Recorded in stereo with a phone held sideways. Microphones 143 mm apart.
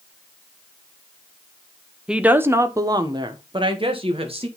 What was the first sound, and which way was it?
A woman speaking, 5° right (ahead or behind).